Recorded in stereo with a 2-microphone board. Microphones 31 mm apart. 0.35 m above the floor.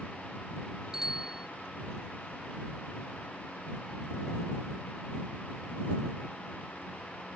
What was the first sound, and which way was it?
A bicycle bell, 20° right (ahead or behind).